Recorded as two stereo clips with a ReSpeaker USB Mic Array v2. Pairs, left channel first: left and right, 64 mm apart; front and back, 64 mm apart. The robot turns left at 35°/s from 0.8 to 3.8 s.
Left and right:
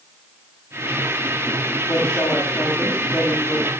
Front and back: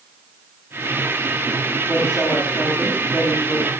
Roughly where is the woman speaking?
Ahead left.